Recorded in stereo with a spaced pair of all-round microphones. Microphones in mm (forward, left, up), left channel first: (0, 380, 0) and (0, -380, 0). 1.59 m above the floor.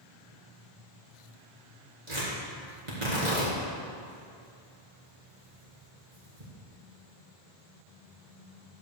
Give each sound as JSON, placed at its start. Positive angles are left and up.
{"t": 2.1, "sound": "tearing paper", "side_deg": -60, "distance_m": 4.0}